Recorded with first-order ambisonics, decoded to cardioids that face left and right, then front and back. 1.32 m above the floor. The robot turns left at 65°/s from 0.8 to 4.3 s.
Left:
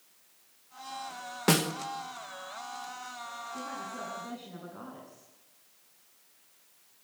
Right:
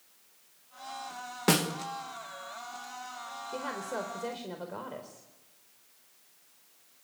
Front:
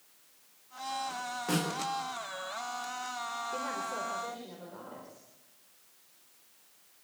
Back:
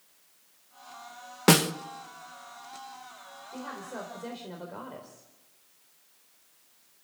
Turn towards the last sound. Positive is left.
turn(degrees=-120)